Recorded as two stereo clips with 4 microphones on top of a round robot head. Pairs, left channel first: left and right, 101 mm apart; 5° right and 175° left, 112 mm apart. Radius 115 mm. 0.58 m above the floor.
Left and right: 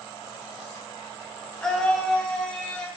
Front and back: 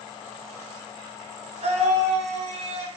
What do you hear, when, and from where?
1.6 s a scream: 175° left, 2.5 m; by 2.9 s 170° left, 3.5 m